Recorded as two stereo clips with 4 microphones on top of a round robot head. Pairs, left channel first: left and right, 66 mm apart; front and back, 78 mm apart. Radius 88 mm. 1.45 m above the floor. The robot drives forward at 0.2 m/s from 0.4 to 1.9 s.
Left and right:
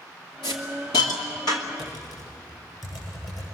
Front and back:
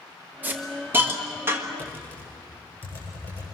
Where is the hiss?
115° left, 2 m; by 1.7 s 120° left, 2 m.